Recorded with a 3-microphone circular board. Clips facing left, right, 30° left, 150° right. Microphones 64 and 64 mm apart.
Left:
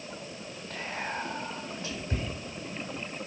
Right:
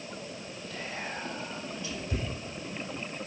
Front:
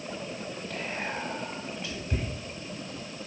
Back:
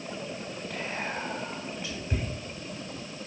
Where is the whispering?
140° left, 3.5 m.